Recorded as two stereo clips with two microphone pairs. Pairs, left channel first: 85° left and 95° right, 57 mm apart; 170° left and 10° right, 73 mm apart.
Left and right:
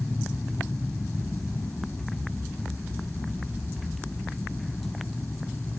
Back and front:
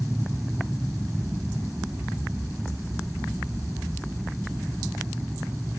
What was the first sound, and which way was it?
An aircraft, 45° left.